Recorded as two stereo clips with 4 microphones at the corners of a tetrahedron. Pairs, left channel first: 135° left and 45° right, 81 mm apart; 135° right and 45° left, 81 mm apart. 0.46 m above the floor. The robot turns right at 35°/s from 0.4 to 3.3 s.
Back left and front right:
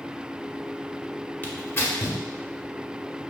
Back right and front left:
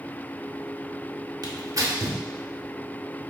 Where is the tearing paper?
70° left, 1.0 m; by 2.2 s 95° left, 1.0 m.